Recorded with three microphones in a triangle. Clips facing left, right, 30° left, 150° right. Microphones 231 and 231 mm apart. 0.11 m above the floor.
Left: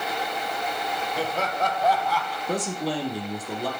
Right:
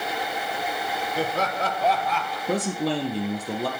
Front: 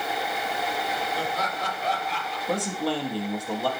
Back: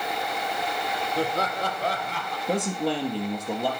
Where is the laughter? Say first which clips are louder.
Right 2 dB, back 4 dB; 130° right, 3 m; by 2.4 s 165° right, 2 m.